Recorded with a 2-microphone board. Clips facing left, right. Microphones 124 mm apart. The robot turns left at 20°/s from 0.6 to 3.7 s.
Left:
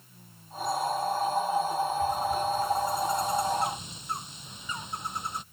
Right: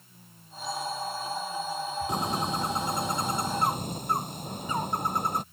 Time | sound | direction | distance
2.1 | a bird | 100° right | ?